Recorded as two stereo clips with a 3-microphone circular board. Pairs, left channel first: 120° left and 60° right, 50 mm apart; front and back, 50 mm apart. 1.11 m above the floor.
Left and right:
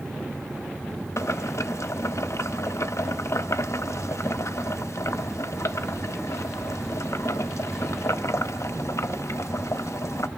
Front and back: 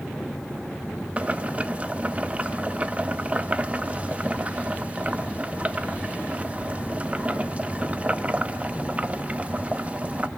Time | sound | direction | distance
1.2 | boiling | 120° left | 0.7 m